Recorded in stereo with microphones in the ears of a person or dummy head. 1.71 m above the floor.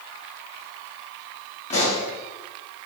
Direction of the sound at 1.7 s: 40° left (ahead or behind).